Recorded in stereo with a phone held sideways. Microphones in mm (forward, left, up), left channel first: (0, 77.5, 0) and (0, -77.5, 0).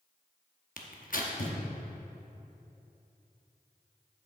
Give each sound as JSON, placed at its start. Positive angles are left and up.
{"t": 0.8, "sound": "tearing paper", "side_deg": 65, "distance_m": 0.9}